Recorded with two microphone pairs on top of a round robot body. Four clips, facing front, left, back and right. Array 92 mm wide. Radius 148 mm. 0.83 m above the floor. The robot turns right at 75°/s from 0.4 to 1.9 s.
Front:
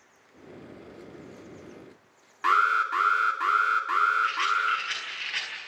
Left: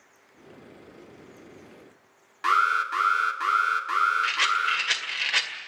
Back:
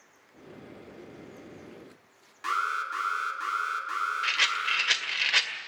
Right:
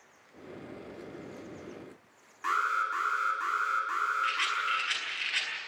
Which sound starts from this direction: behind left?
A rattle, at 4.2 s.